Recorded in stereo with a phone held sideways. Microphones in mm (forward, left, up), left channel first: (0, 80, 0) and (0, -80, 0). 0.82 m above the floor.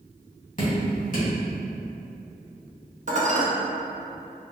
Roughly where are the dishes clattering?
Right.